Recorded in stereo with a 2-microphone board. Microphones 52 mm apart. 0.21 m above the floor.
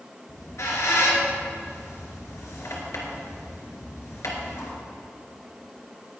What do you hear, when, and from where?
0.3 s a squeak: 70° left (ahead or behind), 2 m